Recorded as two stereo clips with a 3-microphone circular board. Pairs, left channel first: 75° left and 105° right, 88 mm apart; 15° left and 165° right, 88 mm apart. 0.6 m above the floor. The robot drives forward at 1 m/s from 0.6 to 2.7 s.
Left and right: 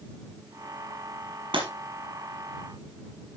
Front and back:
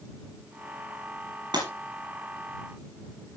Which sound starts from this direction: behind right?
Breaking glass, at 1.5 s.